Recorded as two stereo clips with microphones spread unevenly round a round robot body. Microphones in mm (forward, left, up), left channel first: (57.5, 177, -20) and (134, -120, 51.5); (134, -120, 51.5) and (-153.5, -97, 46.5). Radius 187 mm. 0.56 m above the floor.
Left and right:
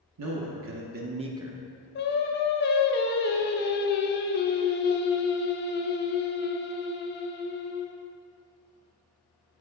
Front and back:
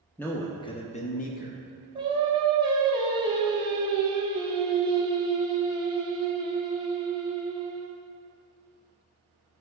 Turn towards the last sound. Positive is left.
turn(degrees=110)